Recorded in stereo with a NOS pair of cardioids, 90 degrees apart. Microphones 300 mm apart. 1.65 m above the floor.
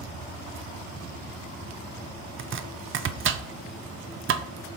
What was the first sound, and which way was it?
Chopping, 40° right.